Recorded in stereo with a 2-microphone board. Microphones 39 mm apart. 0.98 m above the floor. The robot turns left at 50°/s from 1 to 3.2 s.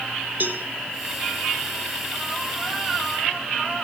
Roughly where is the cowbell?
Right.